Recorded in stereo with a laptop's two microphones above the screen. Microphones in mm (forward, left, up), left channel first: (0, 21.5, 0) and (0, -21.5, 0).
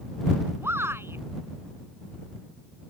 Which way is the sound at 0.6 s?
75° right (ahead or behind).